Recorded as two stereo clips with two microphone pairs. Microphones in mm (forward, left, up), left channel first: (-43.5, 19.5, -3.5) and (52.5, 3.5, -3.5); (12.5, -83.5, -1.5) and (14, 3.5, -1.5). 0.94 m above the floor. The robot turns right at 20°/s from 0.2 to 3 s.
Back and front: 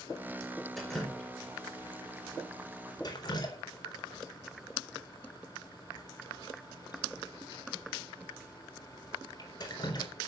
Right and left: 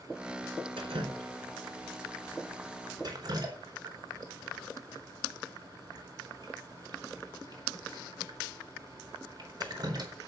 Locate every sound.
0.8 s dripping: 80° left, 4 m; by 10.1 s 125° left, 4 m